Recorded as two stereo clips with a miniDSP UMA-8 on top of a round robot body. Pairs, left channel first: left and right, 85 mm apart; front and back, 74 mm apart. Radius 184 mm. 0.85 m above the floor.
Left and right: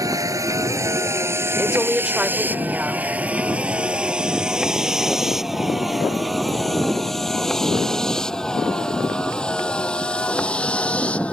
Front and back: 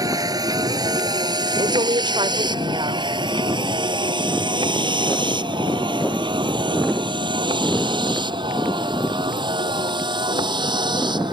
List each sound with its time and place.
0.0 s a vehicle: 140° right; by 11.3 s 165° left
1.6 s a woman speaking: 170° right